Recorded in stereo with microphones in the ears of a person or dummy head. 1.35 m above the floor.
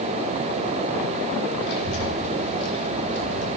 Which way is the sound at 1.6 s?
65° left (ahead or behind).